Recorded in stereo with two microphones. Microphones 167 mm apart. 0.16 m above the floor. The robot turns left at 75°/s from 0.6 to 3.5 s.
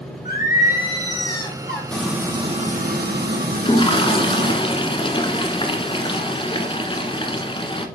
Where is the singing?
85° left, 3 m; by 1.8 s 5° right, 3 m.